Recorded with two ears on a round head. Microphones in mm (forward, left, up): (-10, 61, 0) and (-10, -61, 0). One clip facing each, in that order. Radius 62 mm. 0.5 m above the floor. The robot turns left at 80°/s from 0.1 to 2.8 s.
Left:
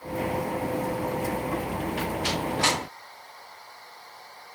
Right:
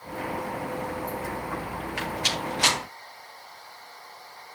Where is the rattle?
75° right (ahead or behind), 7.5 m; by 2.8 s 10° right (ahead or behind), 7.5 m.